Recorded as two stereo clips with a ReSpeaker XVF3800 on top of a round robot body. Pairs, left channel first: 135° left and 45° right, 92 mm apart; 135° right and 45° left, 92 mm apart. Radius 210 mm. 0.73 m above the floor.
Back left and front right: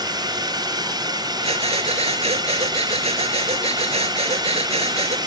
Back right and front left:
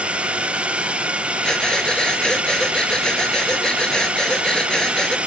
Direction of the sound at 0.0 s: 30° right.